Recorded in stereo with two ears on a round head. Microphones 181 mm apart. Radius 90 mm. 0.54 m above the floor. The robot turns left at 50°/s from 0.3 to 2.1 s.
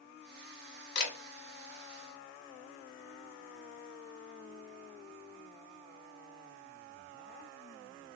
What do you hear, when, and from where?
0.9 s a camera shutter: 60° left (ahead or behind), 0.9 m; by 1.1 s 50° left (ahead or behind), 0.9 m